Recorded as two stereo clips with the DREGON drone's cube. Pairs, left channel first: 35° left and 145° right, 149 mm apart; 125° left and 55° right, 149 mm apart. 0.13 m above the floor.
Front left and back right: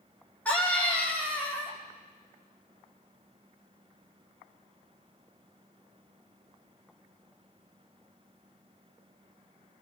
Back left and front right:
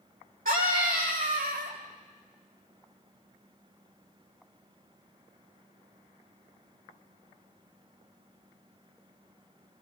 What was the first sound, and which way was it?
A scream, 45° right.